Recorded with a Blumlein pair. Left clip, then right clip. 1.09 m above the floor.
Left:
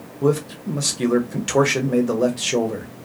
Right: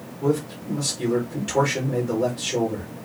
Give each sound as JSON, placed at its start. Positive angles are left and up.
{"t": 0.2, "sound": "a man speaking", "azimuth_deg": 65, "distance_m": 0.9}